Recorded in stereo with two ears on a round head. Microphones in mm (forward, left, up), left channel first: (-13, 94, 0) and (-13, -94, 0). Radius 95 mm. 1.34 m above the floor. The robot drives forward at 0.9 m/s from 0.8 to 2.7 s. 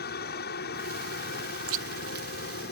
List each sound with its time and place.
0.0 s a helicopter: 50° left (ahead or behind)
1.7 s chewing: 75° right (ahead or behind); by 2.3 s 45° right (ahead or behind)